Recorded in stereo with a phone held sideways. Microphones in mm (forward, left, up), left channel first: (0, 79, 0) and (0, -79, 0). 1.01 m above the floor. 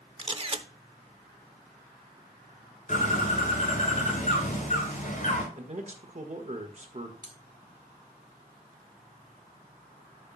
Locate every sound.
0.2 s a camera shutter: 35° right (ahead or behind), 0.8 m
2.9 s a bird: 50° left (ahead or behind), 4.5 m
5.5 s a man speaking: 50° right (ahead or behind), 1.4 m
7.2 s cutlery clinking: 55° right (ahead or behind), 2.5 m